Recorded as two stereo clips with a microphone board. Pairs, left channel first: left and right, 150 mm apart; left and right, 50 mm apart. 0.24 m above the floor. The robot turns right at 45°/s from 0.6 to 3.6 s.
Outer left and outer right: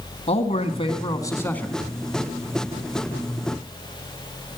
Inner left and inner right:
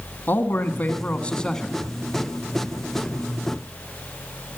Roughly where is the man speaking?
Behind left.